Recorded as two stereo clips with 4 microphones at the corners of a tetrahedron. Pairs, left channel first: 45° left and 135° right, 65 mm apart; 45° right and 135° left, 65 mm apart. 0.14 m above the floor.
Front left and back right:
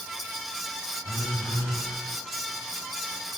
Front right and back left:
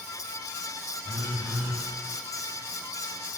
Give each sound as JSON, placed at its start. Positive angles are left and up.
{"t": 1.0, "sound": "a phone buzzing", "azimuth_deg": 100, "distance_m": 2.5}